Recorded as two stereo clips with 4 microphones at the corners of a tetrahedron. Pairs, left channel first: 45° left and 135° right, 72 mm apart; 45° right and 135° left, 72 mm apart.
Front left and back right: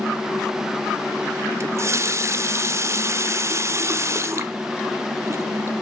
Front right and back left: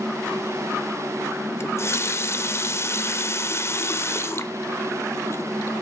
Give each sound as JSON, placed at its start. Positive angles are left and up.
{"t": 1.6, "sound": "a running tap", "azimuth_deg": -90, "distance_m": 0.8}